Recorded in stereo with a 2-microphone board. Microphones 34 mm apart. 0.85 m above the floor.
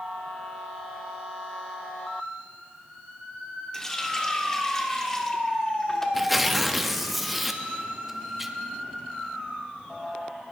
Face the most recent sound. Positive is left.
turn(degrees=-5)  # may be behind; listen again after turning